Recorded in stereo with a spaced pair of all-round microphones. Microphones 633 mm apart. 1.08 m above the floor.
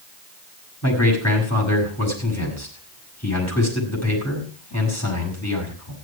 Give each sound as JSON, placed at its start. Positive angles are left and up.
{"t": 0.8, "sound": "a man speaking", "side_deg": 25, "distance_m": 6.5}